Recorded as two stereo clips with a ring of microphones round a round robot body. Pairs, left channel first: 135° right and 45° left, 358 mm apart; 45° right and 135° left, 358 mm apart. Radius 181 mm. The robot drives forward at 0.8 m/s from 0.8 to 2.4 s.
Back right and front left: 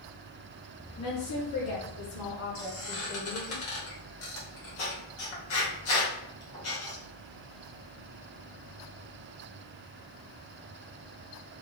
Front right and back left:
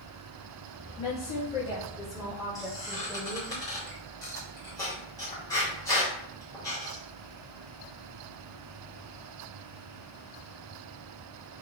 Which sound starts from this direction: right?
A woman speaking, at 1.0 s.